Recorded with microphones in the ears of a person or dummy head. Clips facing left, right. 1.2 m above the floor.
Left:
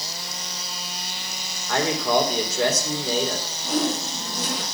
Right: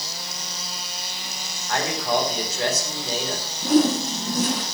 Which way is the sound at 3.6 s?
55° right (ahead or behind).